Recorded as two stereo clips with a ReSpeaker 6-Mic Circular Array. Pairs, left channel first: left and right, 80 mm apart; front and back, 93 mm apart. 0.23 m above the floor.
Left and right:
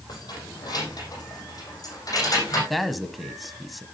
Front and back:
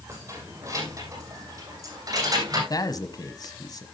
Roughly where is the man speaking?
Ahead.